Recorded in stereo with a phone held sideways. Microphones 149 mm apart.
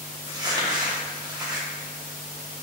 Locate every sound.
0.3 s crumpling: 25° right (ahead or behind), 0.9 m